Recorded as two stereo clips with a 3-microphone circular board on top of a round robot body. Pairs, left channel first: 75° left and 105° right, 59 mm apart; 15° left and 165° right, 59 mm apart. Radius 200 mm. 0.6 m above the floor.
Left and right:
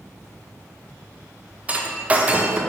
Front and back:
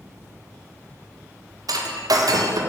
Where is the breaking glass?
170° right, 0.9 m.